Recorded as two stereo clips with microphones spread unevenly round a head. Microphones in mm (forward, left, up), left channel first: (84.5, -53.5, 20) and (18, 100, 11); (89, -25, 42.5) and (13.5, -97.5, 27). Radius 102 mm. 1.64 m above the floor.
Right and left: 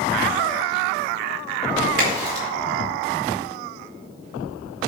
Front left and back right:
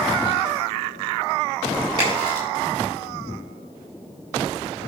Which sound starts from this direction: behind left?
A crack, at 2.0 s.